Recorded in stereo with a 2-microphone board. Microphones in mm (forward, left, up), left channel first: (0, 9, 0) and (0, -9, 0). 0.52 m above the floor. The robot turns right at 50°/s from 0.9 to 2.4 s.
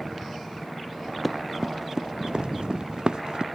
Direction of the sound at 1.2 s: 10° right (ahead or behind).